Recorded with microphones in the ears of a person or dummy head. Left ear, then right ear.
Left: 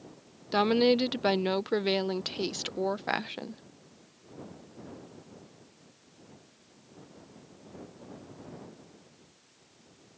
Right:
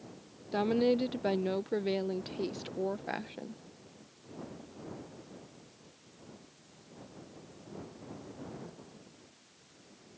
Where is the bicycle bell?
No bicycle bell in this recording.